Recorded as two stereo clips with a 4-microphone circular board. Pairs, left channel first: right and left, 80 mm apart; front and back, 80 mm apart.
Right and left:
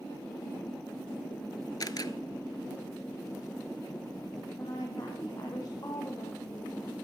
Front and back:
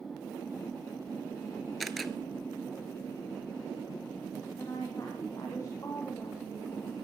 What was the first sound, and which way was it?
A camera shutter, 90° right.